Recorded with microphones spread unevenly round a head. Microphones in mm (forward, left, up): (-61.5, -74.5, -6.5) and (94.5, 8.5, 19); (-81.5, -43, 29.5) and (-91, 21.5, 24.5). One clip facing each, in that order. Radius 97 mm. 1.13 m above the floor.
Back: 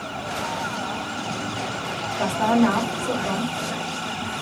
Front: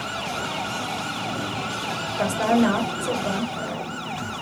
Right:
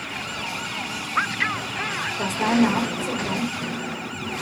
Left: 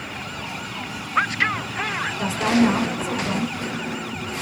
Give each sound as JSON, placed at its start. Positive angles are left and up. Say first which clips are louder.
{"t": 2.2, "sound": "a woman speaking", "louder": "even, left 1 dB", "azimuth_deg": -40, "distance_m": 1.3}